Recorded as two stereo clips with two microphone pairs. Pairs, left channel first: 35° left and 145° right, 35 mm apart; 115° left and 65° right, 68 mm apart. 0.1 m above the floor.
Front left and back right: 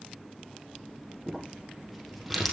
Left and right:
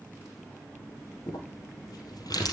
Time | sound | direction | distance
1.3 | crumpling | 130° left | 3.5 m